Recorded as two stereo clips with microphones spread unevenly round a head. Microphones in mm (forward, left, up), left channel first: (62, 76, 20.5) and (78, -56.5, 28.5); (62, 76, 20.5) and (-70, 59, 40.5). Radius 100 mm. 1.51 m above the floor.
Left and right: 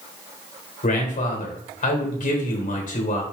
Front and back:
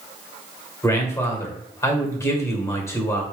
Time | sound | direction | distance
0.8 | a man speaking | 75° left | 1.7 m